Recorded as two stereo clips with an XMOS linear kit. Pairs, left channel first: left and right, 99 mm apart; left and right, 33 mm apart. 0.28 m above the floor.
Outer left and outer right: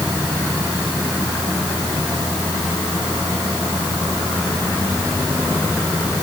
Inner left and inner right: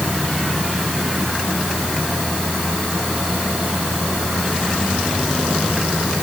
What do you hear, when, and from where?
Only background noise.